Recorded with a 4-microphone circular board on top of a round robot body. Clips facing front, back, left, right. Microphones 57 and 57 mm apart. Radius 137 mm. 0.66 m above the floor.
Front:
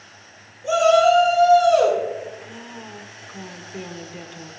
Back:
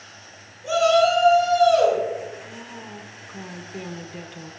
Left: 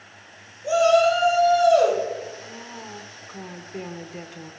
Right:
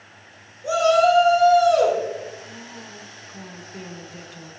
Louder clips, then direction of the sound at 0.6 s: Front 3 dB, even; 85° right.